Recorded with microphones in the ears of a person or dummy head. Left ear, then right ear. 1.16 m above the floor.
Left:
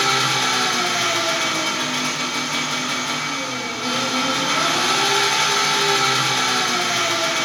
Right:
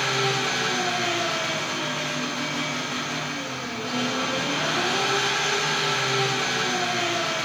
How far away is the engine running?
About 1.8 m.